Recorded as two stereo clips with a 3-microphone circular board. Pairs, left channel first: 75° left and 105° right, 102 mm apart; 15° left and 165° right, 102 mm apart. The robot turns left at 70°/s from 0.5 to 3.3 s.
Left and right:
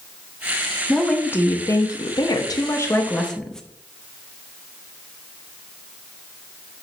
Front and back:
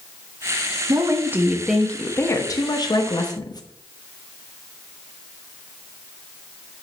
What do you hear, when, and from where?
0.9 s a woman speaking: 160° left, 1.1 m; by 3.6 s 5° right, 1.1 m